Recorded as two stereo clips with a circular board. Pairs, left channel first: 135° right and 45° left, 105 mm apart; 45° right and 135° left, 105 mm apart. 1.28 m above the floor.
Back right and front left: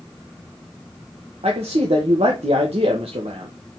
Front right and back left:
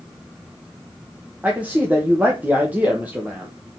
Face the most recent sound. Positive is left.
turn(degrees=60)